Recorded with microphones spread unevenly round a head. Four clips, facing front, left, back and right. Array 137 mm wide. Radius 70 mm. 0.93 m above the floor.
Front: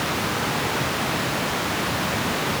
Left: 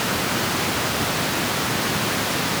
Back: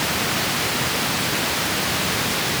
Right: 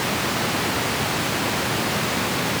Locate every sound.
Only background noise.